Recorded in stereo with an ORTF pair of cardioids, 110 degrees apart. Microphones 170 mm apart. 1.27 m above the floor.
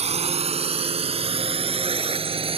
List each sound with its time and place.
0.0 s a drone: 35° right; by 2.6 s 30° right